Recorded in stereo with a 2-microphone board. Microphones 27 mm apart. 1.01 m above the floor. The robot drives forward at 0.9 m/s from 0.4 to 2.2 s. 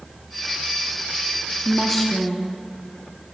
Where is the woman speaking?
10° left (ahead or behind), 0.6 m.